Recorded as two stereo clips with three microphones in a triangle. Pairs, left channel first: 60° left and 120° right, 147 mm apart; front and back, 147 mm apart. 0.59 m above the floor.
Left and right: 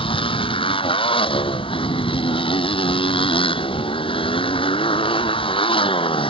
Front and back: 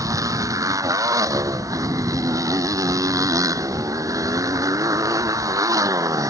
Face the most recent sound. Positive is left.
turn(degrees=115)